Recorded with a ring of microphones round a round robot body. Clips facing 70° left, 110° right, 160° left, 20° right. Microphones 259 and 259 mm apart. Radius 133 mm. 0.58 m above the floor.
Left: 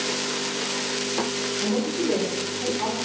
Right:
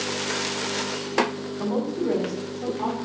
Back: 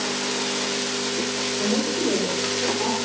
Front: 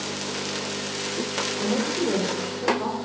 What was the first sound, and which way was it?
A woman speaking, 115° right.